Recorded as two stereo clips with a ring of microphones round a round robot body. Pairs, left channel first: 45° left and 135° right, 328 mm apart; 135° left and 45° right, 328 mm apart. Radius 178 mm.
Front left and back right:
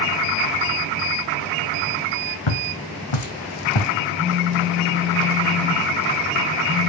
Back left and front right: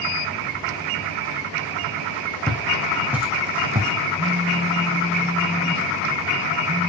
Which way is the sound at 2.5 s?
50° left.